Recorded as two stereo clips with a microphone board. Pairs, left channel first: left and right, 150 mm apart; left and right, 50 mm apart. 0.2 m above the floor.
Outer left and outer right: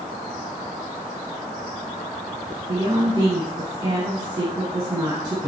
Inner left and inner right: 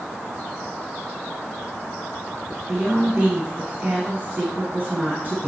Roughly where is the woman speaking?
Right.